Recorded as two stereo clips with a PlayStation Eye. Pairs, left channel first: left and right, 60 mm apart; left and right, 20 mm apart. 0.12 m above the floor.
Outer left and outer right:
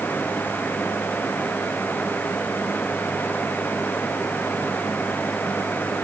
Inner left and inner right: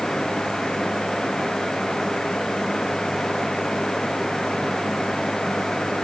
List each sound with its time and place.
Only background noise.